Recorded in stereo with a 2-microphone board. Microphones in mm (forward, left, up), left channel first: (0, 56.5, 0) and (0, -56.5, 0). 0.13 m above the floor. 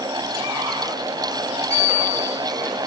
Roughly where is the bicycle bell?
Right.